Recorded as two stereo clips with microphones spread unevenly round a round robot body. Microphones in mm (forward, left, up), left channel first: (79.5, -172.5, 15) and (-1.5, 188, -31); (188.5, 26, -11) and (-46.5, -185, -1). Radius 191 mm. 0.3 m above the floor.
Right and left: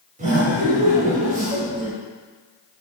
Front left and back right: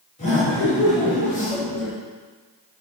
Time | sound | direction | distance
0.2 | laughter | 75° left | 0.9 m